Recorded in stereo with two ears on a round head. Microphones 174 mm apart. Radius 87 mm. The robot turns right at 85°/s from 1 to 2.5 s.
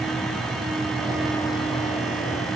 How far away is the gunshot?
I don't hear a gunshot.